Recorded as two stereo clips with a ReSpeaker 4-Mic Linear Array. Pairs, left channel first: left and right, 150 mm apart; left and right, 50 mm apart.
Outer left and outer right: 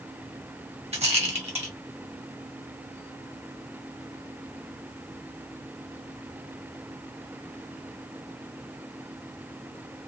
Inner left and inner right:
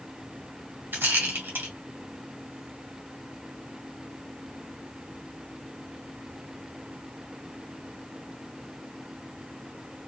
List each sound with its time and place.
0.9 s a rattle: 45° right (ahead or behind), 1.6 m